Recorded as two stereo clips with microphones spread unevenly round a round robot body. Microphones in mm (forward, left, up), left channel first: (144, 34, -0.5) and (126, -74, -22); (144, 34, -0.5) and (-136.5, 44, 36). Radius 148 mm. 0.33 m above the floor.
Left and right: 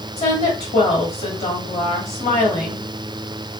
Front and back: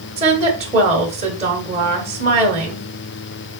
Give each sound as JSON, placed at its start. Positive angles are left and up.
{"t": 0.2, "sound": "a woman speaking", "azimuth_deg": 110, "distance_m": 1.3}